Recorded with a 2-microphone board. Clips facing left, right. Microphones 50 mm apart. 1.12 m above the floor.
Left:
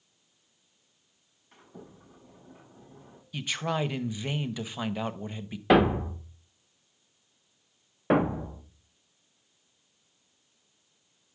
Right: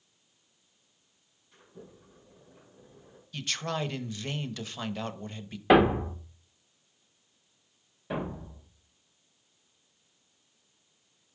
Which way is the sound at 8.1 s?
60° left (ahead or behind).